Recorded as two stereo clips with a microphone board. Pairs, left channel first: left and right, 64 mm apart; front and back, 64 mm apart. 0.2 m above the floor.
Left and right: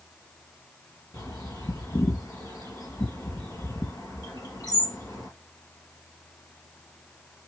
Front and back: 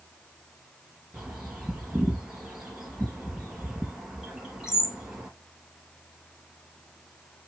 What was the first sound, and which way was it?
A bird, 100° left.